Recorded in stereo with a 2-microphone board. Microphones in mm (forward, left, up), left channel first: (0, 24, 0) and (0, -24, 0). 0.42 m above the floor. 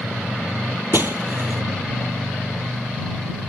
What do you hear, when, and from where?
0.9 s breaking glass: 50° right (ahead or behind)